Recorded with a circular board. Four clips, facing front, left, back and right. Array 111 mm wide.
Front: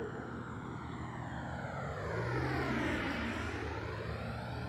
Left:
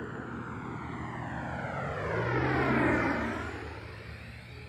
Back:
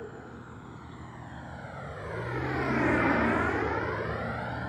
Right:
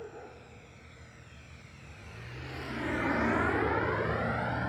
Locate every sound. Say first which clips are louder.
0.0 s a vehicle: left 6 dB, front 1 dB; 85° left; by 4.7 s 115° right